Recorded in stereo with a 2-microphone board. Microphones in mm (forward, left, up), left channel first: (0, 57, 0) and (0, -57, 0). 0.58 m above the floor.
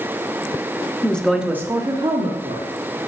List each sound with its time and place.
1.0 s a woman speaking: 15° left (ahead or behind), 0.8 m; by 2.7 s 60° right (ahead or behind), 1.2 m